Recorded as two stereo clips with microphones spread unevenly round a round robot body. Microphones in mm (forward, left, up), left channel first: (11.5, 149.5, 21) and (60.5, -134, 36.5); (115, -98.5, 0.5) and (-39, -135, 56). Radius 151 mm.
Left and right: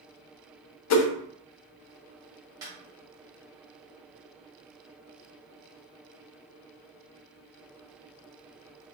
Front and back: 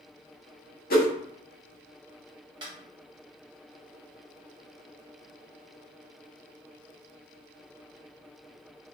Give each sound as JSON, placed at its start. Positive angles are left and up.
{"t": 0.9, "sound": "a whoosh", "azimuth_deg": 60, "distance_m": 0.6}
{"t": 2.6, "sound": "a snare drum", "azimuth_deg": -150, "distance_m": 0.8}